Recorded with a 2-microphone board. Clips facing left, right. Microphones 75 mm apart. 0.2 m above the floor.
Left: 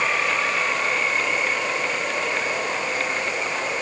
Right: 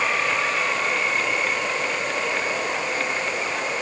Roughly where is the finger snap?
No finger snap in this recording.